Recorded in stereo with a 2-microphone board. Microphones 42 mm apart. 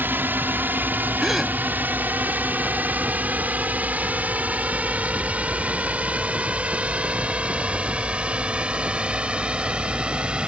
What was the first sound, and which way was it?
A drone, 60° right (ahead or behind).